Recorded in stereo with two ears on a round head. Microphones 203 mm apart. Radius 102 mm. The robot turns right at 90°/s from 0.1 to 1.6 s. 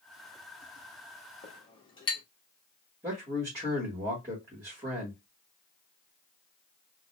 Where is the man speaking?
15° right (ahead or behind), 1.8 m.